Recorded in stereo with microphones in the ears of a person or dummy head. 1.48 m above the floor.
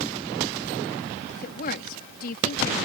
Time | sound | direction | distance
1.3 | a woman speaking | 60° left (ahead or behind) | ?